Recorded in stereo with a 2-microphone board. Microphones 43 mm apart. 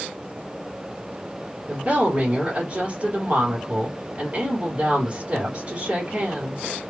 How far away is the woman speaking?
About 3 m.